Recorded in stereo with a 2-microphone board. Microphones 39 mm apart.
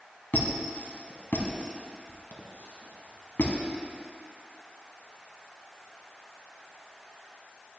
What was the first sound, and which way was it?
A squeak, 70° left (ahead or behind).